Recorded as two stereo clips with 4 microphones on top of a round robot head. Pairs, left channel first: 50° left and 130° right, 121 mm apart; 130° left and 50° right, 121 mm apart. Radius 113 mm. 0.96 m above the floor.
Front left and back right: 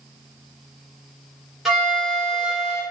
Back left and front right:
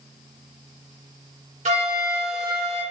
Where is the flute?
45° right, 1.7 m.